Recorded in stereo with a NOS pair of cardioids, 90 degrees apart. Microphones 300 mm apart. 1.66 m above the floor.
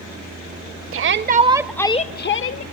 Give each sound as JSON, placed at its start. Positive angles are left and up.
{"t": 0.9, "sound": "a shout", "azimuth_deg": -45, "distance_m": 1.5}